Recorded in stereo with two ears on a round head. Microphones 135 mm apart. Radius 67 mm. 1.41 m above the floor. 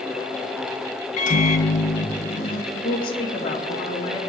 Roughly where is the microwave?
Left.